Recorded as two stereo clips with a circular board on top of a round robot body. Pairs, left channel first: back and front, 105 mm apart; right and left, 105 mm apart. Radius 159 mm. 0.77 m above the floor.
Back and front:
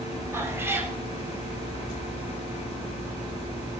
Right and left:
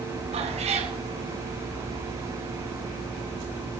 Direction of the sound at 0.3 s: 70° left.